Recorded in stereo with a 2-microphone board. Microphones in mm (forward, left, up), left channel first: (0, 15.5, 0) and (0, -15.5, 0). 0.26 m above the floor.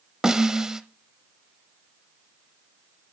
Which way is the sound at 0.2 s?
25° right (ahead or behind).